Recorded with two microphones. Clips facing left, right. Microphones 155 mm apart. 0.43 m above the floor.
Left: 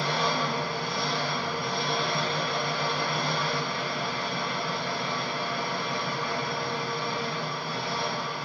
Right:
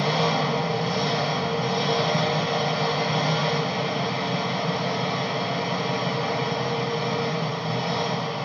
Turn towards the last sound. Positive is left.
turn(degrees=-65)  # may be behind; listen again after turning